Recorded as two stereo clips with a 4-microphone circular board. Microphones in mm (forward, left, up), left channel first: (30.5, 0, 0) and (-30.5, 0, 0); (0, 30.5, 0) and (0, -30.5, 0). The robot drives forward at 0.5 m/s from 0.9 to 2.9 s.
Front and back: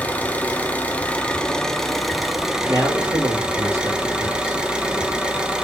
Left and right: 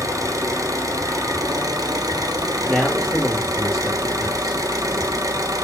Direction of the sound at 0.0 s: 65° right.